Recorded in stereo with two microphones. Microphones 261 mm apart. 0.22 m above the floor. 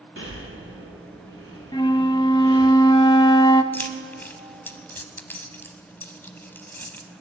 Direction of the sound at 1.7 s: 20° left (ahead or behind).